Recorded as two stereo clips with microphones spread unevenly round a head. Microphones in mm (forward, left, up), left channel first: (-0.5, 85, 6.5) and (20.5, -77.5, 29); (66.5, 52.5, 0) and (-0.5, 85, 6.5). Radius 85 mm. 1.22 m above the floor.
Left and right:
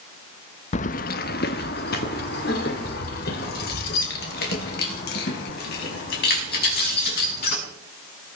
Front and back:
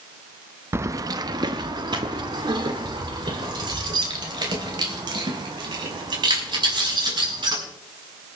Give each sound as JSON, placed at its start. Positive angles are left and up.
{"t": 0.7, "sound": "keys jangling", "azimuth_deg": 140, "distance_m": 0.5}